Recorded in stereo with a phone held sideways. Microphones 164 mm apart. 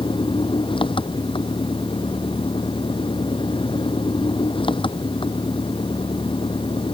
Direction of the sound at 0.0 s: 30° left (ahead or behind).